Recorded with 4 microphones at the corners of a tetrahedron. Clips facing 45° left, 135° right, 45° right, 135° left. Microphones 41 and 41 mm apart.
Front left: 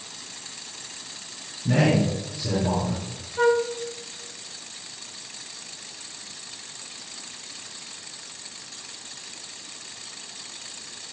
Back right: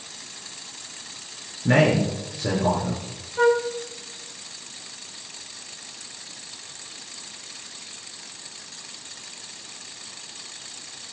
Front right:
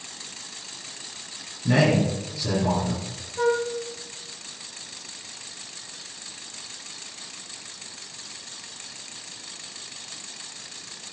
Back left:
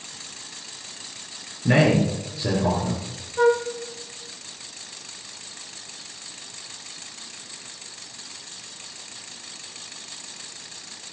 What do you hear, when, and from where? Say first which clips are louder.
1.6 s a man speaking: back right 2 dB, back left 2 dB; 170° right, 5 m
3.4 s a flute: back right 1 dB, back left 4 dB; 155° left, 1.1 m